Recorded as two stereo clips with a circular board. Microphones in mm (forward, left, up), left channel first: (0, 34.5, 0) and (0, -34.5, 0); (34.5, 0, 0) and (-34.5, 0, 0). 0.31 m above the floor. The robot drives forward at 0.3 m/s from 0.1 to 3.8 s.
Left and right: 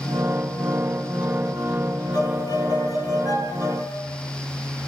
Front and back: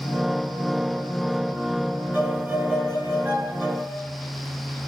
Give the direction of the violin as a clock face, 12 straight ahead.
8 o'clock.